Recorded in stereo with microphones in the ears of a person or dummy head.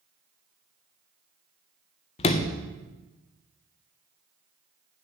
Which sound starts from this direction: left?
A sliding door, at 2.2 s.